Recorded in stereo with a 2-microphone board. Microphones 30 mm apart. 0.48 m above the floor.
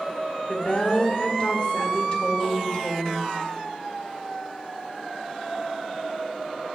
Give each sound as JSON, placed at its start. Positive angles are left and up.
{"t": 0.5, "sound": "a woman speaking", "side_deg": 40, "distance_m": 1.7}